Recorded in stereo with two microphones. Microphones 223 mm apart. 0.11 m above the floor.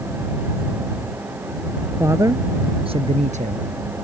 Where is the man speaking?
10° right (ahead or behind); by 3.6 s 35° right (ahead or behind).